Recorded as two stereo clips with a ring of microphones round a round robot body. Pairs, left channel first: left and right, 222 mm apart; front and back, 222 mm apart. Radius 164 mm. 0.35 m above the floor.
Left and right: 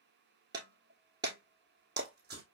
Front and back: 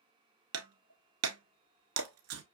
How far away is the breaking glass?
About 0.7 m.